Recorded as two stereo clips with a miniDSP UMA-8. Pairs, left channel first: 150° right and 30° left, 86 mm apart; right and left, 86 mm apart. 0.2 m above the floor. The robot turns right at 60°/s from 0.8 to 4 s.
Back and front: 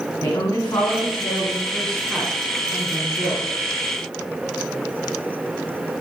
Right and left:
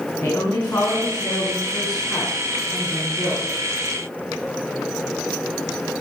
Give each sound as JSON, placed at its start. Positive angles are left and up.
{"t": 0.2, "sound": "a woman speaking", "azimuth_deg": -135, "distance_m": 2.0}